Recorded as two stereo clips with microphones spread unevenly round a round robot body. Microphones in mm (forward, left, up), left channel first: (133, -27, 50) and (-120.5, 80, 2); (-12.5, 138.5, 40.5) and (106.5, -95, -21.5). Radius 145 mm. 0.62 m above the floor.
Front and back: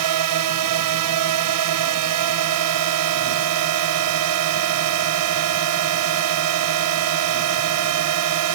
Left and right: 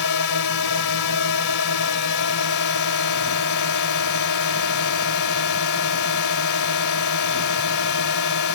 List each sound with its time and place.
0.0 s a drone: 150° left